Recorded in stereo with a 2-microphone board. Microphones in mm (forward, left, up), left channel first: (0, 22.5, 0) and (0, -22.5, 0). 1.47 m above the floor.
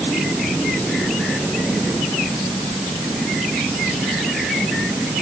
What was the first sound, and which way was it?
Only background noise.